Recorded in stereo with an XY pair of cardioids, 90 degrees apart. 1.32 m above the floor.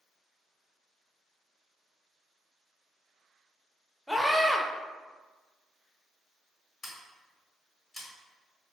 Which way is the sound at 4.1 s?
5° left.